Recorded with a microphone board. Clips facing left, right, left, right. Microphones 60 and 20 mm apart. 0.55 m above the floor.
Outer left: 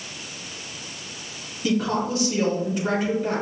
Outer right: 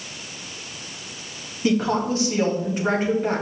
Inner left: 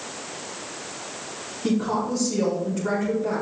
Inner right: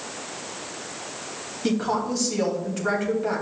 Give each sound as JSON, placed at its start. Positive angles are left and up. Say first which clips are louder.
{"t": 1.6, "sound": "a woman speaking", "louder": "outer right 2 dB, even", "side_deg": -35, "distance_m": 3.0}